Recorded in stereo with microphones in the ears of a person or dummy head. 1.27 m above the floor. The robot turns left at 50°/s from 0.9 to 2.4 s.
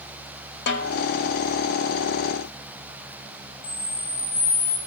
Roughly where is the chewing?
No chewing in this recording.